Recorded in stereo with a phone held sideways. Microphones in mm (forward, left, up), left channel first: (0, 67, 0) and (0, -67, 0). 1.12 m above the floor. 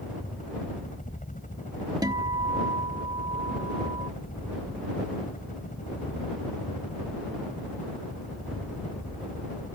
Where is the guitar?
30° right (ahead or behind).